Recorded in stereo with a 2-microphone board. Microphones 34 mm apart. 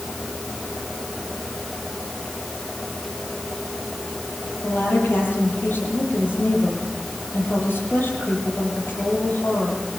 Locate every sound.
4.6 s a woman speaking: 80° left, 10 m